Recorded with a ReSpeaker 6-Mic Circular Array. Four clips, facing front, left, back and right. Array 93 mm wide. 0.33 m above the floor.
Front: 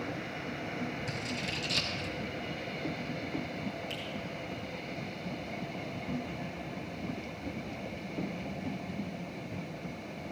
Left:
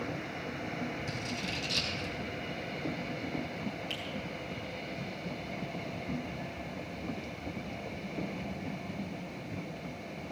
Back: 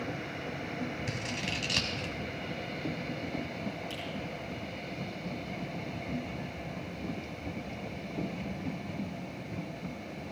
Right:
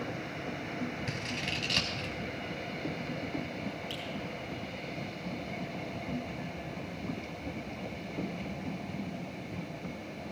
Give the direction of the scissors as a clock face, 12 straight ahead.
5 o'clock.